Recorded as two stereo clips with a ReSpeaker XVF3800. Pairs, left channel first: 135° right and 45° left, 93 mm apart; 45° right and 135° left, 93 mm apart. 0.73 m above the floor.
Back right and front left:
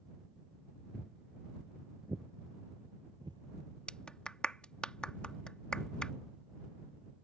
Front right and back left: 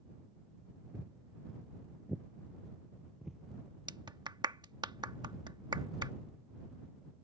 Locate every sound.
0.9 s footsteps: 155° left; by 3.4 s 50° left
3.9 s a clap: 150° left